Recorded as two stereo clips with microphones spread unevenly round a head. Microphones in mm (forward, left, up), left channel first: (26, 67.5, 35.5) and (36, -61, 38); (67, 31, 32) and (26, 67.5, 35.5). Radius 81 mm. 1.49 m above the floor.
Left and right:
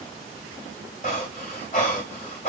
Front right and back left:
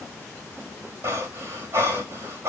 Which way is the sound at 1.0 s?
130° left.